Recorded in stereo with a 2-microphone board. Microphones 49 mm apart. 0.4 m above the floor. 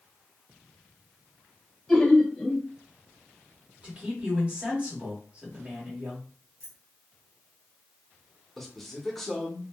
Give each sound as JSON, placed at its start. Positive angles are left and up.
{"t": 1.9, "sound": "laughter", "side_deg": 5, "distance_m": 1.4}
{"t": 3.8, "sound": "a man speaking", "side_deg": -25, "distance_m": 1.6}
{"t": 6.6, "sound": "keys jangling", "side_deg": -60, "distance_m": 1.6}
{"t": 8.6, "sound": "a man speaking", "side_deg": 5, "distance_m": 0.7}